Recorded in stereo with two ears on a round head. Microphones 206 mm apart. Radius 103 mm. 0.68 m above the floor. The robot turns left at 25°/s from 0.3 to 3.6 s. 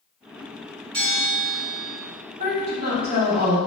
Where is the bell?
45° right (ahead or behind), 1.3 m; by 2.0 s 30° right (ahead or behind), 1.3 m.